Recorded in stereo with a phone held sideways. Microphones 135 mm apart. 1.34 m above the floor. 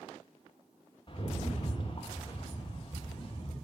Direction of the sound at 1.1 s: 40° left (ahead or behind).